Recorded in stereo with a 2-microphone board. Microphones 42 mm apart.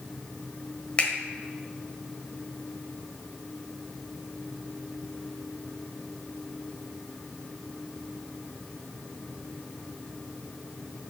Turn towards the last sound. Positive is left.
turn(degrees=30)  # may be behind; listen again after turning